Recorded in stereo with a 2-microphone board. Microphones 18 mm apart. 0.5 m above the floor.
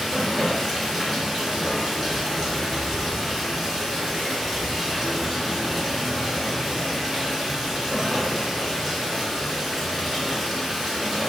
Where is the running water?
5° right (ahead or behind), 1.3 m.